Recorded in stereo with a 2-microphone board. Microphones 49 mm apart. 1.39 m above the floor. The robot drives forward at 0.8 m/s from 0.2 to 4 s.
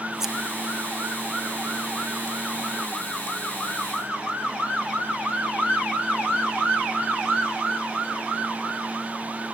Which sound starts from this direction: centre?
Scissors, at 0.2 s.